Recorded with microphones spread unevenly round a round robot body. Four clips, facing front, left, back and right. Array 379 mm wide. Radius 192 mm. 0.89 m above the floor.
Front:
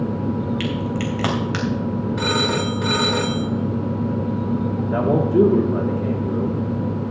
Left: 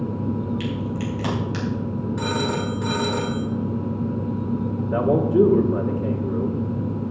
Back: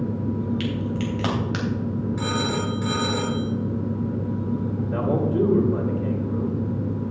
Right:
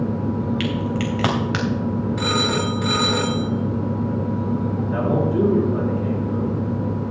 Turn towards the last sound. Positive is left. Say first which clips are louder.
# left 3 dB, front 6 dB
turn(degrees=35)